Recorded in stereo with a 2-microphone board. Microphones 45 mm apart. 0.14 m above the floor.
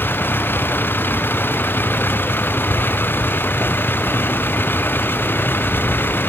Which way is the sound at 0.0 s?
50° left (ahead or behind).